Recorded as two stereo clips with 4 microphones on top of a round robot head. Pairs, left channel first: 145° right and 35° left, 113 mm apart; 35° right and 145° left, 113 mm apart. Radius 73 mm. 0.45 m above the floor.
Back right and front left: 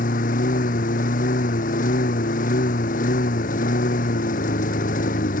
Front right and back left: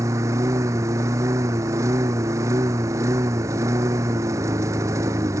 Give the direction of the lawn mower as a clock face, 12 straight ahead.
5 o'clock.